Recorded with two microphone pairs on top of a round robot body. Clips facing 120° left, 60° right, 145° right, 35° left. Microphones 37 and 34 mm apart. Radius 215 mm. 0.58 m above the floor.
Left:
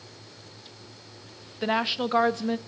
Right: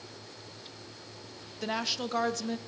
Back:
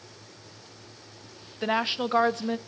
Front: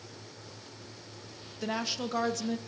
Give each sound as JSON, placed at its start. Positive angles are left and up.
{"t": 1.6, "sound": "a woman speaking", "azimuth_deg": 170, "distance_m": 0.8}